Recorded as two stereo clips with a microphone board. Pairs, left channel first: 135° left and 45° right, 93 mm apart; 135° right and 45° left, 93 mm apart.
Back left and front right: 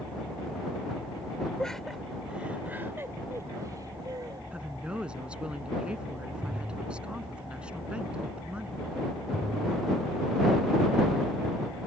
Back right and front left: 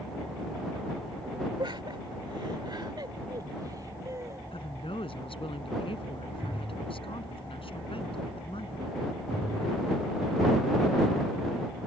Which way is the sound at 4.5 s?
125° right.